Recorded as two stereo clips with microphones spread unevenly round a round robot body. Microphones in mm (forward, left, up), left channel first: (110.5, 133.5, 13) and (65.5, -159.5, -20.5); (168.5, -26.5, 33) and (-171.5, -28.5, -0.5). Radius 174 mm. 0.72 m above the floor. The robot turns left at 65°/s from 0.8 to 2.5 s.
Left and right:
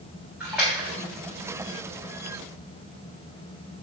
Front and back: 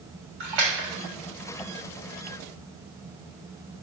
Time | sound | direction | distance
0.4 | a splash | 175° left | 3 m